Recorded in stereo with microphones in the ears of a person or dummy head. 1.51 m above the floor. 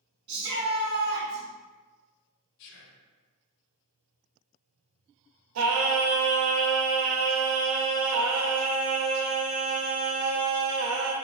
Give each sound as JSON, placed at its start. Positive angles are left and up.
{"t": 0.3, "sound": "a shout", "side_deg": -30, "distance_m": 1.3}
{"t": 2.6, "sound": "whispering", "side_deg": 65, "distance_m": 0.6}
{"t": 5.5, "sound": "singing", "side_deg": -80, "distance_m": 0.6}